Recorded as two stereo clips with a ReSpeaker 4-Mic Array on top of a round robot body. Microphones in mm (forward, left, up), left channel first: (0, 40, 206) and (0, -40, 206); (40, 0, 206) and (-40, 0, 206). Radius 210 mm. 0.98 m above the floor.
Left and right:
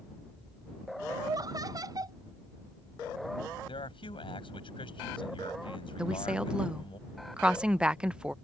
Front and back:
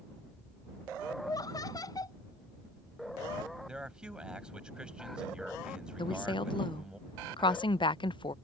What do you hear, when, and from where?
1.2 s laughter: 45° right
3.7 s a man speaking: 100° left
6.0 s a woman speaking: 10° right